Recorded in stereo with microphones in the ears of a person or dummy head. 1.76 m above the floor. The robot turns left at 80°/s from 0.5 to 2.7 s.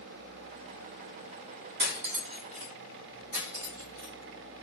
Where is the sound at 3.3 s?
65° right (ahead or behind), 3.5 m.